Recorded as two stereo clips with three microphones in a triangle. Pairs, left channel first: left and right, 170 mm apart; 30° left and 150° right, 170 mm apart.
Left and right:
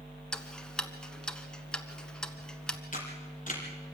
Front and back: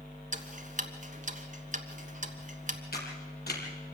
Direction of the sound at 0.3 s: 175° left.